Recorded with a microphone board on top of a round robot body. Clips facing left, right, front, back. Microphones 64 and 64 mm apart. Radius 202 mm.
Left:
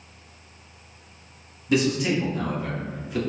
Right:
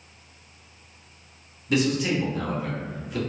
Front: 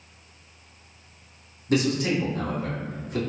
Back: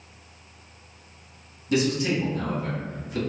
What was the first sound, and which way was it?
A man speaking, 5° left.